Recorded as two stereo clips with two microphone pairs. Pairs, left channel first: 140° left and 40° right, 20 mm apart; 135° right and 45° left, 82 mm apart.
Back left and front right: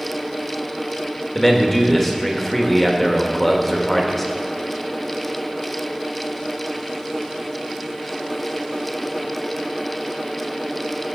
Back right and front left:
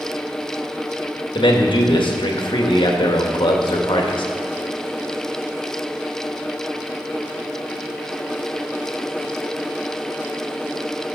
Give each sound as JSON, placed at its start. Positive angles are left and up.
{"t": 1.4, "sound": "a man speaking", "azimuth_deg": -145, "distance_m": 1.4}